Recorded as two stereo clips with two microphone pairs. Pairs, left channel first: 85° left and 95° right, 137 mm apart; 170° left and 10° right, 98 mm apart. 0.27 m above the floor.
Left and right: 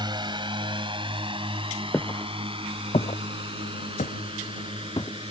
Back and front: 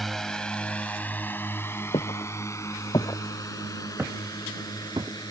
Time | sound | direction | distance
0.0 | a drone | 105° right | ?
1.9 | footsteps | 155° left | ?